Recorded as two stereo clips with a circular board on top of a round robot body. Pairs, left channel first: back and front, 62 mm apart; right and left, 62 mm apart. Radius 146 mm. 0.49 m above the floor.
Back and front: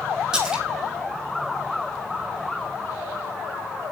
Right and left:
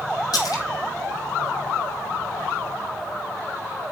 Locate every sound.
0.3 s a splash: 85° right, 4 m